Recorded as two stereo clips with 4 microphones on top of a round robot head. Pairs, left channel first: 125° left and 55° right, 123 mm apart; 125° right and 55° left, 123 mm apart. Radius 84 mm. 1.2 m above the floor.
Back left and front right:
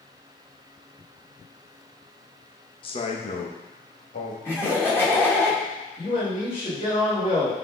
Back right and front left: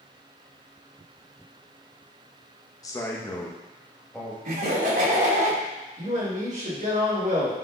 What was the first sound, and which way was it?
A man speaking, 175° left.